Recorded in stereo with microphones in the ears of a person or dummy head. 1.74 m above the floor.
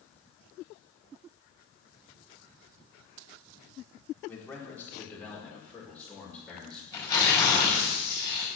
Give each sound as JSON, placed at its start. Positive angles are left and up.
{"t": 4.3, "sound": "a man speaking", "side_deg": 15, "distance_m": 4.5}
{"t": 6.9, "sound": "tearing paper", "side_deg": 25, "distance_m": 6.0}